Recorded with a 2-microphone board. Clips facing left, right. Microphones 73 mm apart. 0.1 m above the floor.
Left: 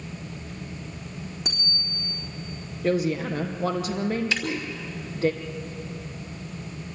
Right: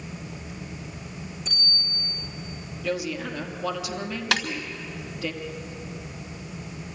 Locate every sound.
1.4 s a bicycle bell: 75° left (ahead or behind), 4 m
2.8 s a woman speaking: 40° left (ahead or behind), 2.5 m
4.3 s a snare drum: 70° right (ahead or behind), 1.3 m